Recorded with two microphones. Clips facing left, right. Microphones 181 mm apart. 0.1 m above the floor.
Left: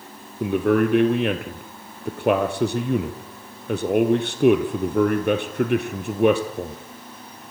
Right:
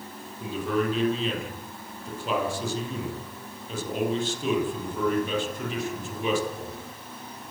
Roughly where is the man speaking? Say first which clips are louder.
Left 8 dB; left.